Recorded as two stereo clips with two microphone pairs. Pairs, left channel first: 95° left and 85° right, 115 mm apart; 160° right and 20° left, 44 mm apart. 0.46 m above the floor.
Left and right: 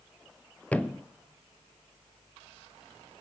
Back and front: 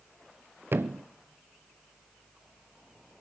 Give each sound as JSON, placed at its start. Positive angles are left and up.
{"t": 0.7, "sound": "a thud", "azimuth_deg": 15, "distance_m": 0.6}